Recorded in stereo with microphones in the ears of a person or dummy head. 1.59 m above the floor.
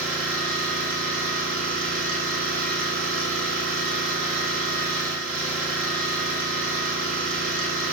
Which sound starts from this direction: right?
An engine running, at 0.0 s.